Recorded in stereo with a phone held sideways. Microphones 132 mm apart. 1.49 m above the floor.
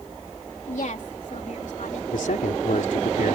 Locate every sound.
0.7 s a woman speaking: 70° left (ahead or behind)
2.1 s a man speaking: 80° left